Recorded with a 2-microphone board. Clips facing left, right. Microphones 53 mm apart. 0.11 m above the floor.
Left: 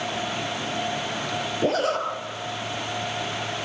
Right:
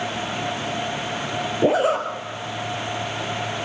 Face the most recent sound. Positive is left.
turn(degrees=-15)  # may be behind; listen again after turning